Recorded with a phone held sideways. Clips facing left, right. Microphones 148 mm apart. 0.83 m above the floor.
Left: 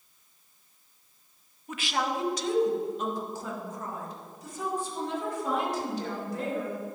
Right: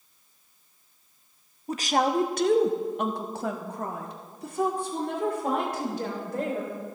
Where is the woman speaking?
35° right (ahead or behind), 0.7 m; by 6.8 s 55° right (ahead or behind), 3 m.